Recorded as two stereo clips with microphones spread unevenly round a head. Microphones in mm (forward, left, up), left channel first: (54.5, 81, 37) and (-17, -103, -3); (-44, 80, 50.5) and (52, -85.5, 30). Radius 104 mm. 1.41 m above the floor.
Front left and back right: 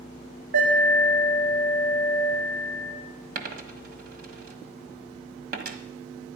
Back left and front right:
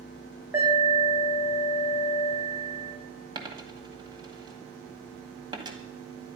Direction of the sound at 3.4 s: 125° right.